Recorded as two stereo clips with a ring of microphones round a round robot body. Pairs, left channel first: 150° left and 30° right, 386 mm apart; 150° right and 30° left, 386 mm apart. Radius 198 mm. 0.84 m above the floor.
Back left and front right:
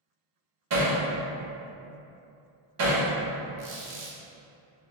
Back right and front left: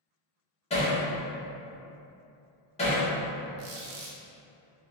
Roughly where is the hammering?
Right.